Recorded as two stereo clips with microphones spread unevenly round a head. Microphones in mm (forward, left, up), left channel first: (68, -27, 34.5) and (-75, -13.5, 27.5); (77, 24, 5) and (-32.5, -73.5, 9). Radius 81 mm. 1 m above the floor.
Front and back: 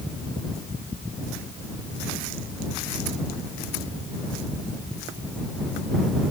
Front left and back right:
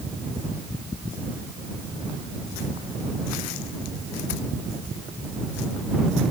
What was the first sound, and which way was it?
Only background noise.